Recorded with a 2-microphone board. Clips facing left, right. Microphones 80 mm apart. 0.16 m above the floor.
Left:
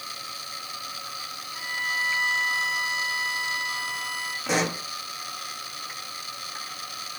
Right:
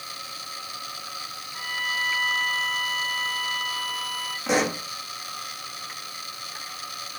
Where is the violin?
10° left (ahead or behind), 7 m.